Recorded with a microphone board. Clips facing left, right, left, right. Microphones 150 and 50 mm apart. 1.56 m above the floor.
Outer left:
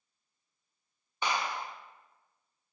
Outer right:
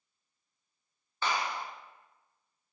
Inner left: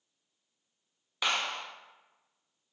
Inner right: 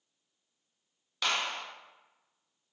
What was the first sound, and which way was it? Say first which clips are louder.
A clap: even, inner left 1 dB; 15° left (ahead or behind).